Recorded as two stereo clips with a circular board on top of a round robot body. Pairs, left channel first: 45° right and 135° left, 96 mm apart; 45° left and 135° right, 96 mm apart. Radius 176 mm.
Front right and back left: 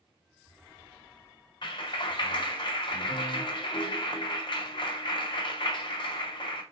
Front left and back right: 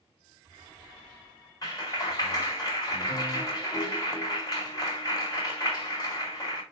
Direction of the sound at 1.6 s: 5° right.